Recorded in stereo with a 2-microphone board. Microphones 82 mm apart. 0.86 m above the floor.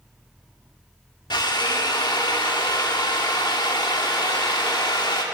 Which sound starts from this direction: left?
A drill, at 1.3 s.